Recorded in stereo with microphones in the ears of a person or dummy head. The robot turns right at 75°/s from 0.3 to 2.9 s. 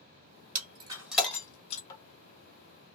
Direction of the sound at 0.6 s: 40° right (ahead or behind).